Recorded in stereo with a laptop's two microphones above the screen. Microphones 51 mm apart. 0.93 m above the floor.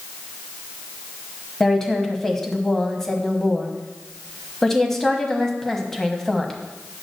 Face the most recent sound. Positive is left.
turn(degrees=5)  # may be behind; listen again after turning